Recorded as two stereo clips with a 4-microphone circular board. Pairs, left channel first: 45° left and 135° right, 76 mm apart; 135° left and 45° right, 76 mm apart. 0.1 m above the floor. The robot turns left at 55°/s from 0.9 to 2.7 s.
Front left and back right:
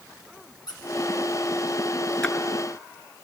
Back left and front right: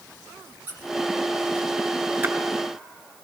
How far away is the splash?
About 0.6 m.